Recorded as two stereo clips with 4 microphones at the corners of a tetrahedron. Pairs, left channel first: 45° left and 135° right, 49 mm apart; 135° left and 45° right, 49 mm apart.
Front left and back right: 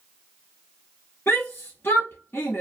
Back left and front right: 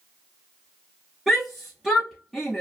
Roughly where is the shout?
Ahead left.